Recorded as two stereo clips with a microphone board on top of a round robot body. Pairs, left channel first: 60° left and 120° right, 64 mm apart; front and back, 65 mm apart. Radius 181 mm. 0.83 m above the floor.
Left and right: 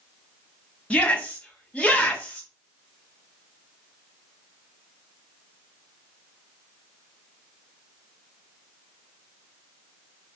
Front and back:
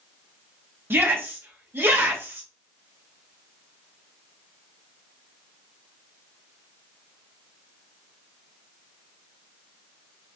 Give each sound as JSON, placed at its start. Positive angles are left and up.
{"t": 0.9, "sound": "a shout", "azimuth_deg": 130, "distance_m": 1.4}